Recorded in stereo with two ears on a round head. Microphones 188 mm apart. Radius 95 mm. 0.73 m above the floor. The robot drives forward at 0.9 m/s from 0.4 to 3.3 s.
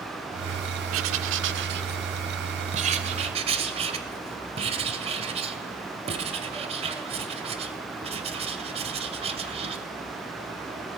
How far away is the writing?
About 1.4 m.